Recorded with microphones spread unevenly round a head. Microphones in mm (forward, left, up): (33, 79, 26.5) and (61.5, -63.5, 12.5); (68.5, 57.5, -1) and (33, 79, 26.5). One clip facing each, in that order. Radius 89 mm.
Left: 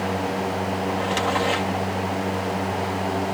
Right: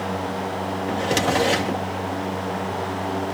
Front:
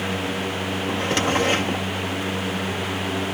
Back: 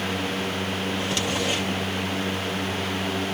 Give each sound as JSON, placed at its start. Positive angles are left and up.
{"t": 0.9, "sound": "a drawer", "azimuth_deg": -120}